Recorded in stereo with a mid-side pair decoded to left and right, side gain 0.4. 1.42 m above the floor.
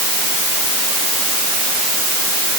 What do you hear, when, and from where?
Only background noise.